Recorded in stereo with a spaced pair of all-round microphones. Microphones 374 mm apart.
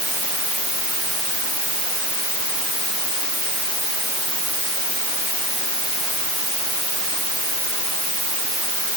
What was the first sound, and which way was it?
Only background noise.